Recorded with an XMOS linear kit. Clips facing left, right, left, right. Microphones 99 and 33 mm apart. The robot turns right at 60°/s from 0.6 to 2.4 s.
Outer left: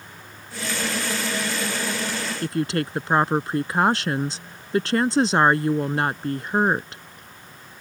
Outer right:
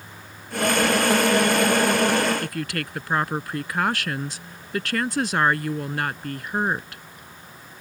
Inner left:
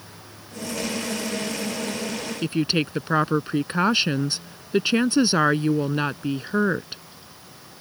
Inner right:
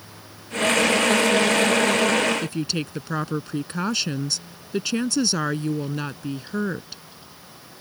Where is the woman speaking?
25° left (ahead or behind).